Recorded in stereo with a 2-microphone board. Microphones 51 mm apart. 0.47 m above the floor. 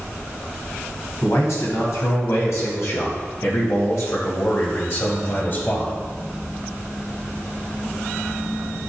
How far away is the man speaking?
About 4 m.